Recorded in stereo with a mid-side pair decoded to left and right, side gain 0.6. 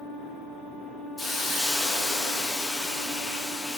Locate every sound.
1.2 s a hiss: 20° left, 0.6 m